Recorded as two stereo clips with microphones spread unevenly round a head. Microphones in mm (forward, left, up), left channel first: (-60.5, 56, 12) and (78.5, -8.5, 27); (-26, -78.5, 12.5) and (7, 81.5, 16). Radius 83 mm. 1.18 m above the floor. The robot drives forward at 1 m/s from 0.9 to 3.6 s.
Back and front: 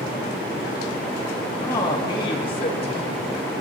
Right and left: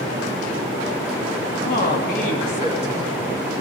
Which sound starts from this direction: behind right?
A man speaking, at 1.6 s.